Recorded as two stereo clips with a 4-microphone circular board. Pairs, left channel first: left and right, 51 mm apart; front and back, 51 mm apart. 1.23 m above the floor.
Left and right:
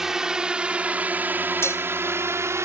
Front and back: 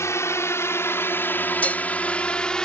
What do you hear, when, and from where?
0.0 s a drone: 10° right; by 2.6 s 75° right
1.6 s dishes clattering: 60° left